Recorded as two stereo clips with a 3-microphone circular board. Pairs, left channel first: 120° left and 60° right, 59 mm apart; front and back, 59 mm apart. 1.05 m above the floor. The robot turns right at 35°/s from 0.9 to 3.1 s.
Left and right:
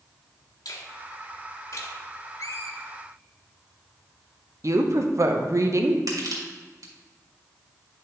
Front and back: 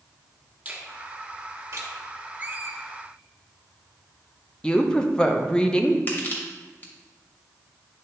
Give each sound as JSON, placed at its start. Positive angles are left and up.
{"t": 0.7, "sound": "a finger snap", "azimuth_deg": 120, "distance_m": 1.6}
{"t": 2.4, "sound": "a squeak", "azimuth_deg": 120, "distance_m": 0.8}
{"t": 4.6, "sound": "a woman speaking", "azimuth_deg": -75, "distance_m": 0.7}
{"t": 6.1, "sound": "crushing", "azimuth_deg": -60, "distance_m": 2.5}